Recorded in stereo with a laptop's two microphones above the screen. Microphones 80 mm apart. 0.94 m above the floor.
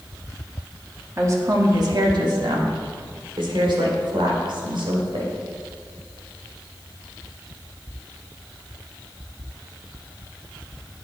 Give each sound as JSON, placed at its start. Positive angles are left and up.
{"t": 1.2, "sound": "a woman speaking", "side_deg": -35, "distance_m": 1.6}